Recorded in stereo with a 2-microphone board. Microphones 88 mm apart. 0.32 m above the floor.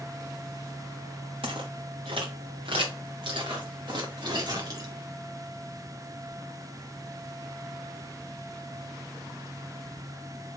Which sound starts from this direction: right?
Footsteps, at 1.4 s.